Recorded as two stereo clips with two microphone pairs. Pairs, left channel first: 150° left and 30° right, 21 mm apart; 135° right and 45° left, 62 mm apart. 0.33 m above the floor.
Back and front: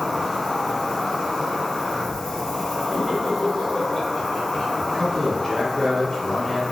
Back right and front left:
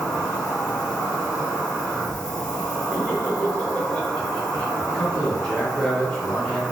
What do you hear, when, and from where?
0.0 s an insect: 150° right, 0.9 m
2.9 s laughter: 175° left, 1.0 m
4.8 s a man speaking: 160° left, 1.0 m